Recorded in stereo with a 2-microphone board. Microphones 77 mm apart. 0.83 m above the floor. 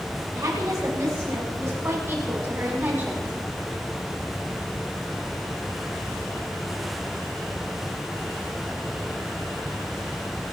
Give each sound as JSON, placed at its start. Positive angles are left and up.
{"t": 0.3, "sound": "a woman speaking", "side_deg": -45, "distance_m": 9.5}